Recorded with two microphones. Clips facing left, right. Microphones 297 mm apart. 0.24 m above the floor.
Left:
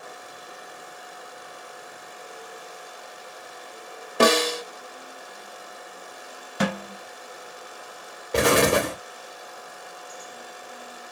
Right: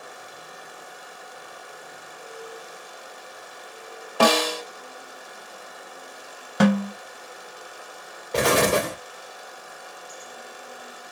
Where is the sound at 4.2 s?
20° left (ahead or behind), 0.7 m.